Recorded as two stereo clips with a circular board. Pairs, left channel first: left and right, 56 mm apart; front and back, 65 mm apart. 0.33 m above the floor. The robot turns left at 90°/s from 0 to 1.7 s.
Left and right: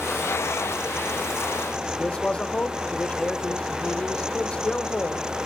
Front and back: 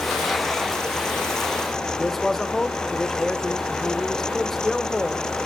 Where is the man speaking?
85° left, 0.8 m.